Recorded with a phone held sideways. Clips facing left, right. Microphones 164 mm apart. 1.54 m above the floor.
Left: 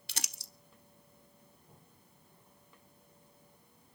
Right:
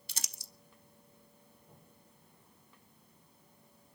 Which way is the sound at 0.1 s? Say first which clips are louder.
Left 5 dB; 70° left (ahead or behind).